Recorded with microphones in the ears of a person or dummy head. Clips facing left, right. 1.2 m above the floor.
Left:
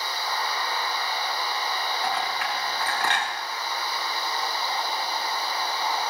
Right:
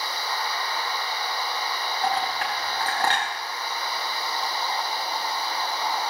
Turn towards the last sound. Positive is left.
turn(degrees=-30)  # may be behind; listen again after turning